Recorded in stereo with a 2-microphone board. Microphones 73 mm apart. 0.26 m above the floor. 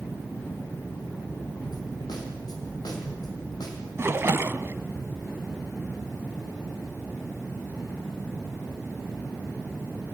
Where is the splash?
40° right (ahead or behind), 0.7 m.